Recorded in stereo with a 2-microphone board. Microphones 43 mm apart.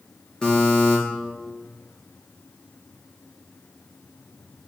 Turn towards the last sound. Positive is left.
turn(degrees=20)  # may be behind; listen again after turning